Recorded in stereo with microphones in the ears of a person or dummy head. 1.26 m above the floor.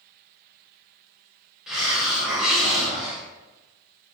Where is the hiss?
5° right (ahead or behind), 0.9 m.